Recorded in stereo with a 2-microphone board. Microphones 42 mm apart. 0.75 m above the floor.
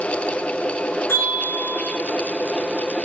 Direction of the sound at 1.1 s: 65° left (ahead or behind).